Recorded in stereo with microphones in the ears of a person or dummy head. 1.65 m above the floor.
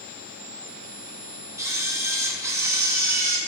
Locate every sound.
1.6 s a camera shutter: 15° right (ahead or behind), 2.0 m